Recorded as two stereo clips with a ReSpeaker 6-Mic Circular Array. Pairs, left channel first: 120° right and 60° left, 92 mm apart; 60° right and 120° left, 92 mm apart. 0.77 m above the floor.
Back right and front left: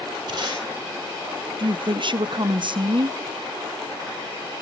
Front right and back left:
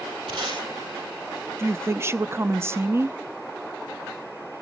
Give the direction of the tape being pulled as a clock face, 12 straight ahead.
9 o'clock.